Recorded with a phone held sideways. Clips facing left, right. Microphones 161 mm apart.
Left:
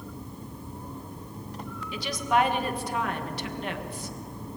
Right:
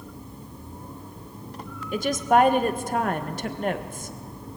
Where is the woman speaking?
45° right (ahead or behind), 1.5 m.